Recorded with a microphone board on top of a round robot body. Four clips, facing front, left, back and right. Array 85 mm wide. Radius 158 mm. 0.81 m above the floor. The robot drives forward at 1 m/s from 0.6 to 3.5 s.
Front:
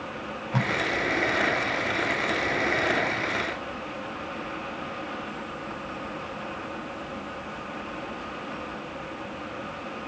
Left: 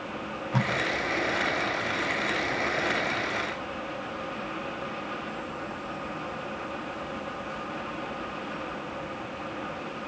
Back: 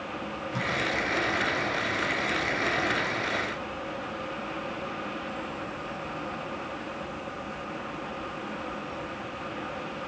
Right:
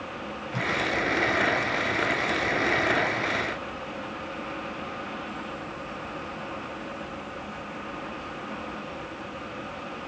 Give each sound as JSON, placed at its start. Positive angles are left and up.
{"t": 0.5, "sound": "tape being pulled", "azimuth_deg": 40, "distance_m": 4.0}